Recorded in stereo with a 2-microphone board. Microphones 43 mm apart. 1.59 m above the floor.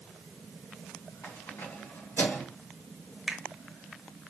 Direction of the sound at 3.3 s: 5° right (ahead or behind).